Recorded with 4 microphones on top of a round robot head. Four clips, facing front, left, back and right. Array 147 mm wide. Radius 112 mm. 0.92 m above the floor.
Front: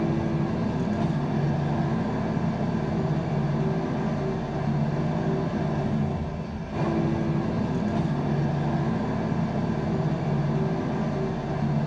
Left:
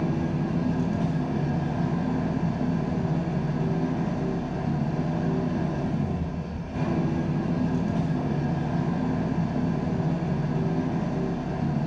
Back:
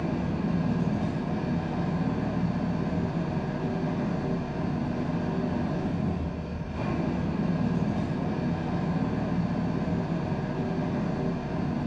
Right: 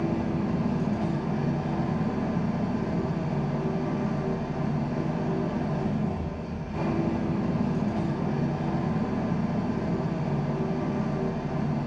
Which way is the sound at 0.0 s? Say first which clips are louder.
Even, front 3 dB; 10° left.